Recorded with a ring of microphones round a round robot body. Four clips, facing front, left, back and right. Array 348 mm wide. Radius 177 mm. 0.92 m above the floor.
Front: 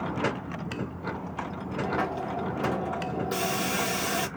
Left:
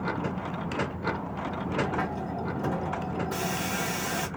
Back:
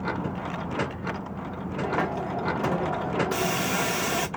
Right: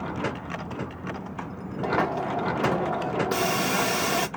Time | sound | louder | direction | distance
1.8 | a hiss | right 5 dB, back 2 dB | 110° right | 0.5 m